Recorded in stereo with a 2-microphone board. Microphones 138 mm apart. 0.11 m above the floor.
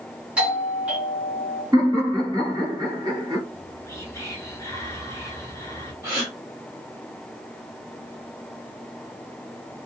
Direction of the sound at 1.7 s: 30° right (ahead or behind).